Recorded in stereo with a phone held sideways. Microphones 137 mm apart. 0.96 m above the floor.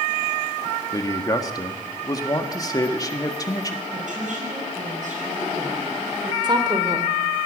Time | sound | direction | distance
0.9 | a man speaking | 25° left (ahead or behind) | 1.6 m
3.9 | a woman speaking | 65° right (ahead or behind) | 7.5 m
6.4 | a woman speaking | 35° right (ahead or behind) | 2.5 m